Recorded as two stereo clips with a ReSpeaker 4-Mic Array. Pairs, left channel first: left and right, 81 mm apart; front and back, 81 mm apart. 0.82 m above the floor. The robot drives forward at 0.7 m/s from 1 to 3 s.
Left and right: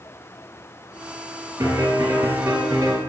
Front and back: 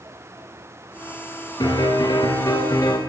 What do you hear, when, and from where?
1.6 s a piano: 40° right, 6 m; by 3.0 s 45° right, 5 m